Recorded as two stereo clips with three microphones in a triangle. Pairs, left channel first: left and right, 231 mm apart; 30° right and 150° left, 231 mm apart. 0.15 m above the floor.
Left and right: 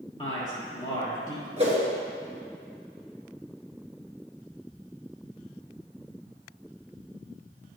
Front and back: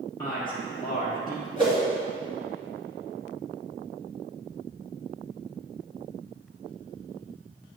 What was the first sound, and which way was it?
A man speaking, 35° left.